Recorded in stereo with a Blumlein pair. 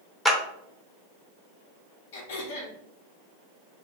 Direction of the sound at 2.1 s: 55° left.